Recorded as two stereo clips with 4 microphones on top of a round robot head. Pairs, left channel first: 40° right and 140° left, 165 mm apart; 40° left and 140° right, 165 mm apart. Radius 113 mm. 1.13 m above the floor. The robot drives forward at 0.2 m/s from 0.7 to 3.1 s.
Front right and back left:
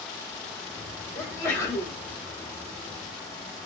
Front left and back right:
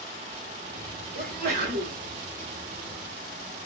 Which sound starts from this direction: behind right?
A sneeze, at 1.1 s.